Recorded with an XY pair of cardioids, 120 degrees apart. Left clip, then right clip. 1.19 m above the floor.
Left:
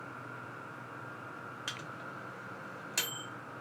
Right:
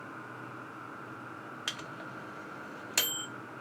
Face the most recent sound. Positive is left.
turn(degrees=-30)